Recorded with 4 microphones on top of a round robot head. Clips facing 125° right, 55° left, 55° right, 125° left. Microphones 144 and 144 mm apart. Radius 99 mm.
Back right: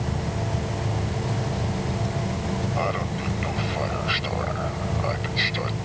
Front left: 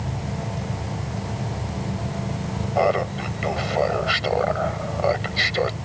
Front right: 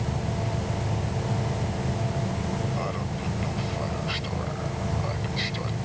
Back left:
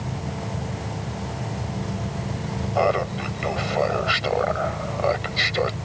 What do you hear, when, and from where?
2.8 s laughter: 100° left